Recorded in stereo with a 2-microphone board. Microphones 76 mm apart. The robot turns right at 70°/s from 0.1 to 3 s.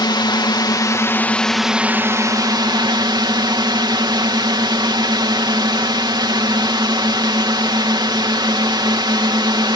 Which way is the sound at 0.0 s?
75° left.